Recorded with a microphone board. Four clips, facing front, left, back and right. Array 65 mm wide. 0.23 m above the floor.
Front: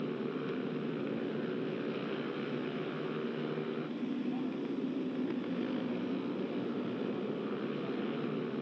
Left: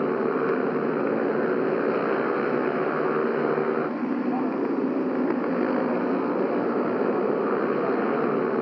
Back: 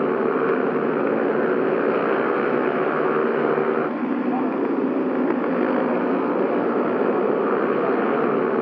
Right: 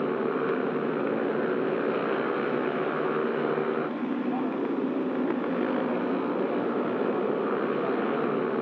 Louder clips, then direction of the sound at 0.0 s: Left 3 dB, back 17 dB; 165° left.